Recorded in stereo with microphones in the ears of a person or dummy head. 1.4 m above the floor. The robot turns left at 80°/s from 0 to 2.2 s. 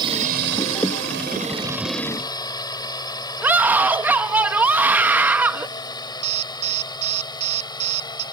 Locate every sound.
0.0 s a drone: 30° right (ahead or behind); by 8.3 s 25° left (ahead or behind)
3.4 s a scream: 10° right (ahead or behind)
6.2 s an alarm: 40° right (ahead or behind)